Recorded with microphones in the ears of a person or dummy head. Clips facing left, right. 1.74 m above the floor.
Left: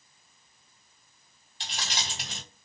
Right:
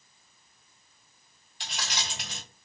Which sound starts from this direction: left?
Keys jangling, at 1.6 s.